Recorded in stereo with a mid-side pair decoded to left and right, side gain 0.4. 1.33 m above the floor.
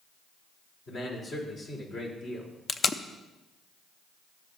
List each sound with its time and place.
0.9 s a man speaking: 50° left, 3.5 m
2.7 s tape being pulled: 40° left, 0.7 m